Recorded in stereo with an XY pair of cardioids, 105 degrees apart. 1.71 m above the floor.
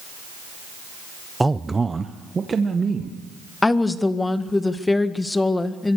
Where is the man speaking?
10° right, 0.6 m; by 3.2 s 35° right, 2.5 m.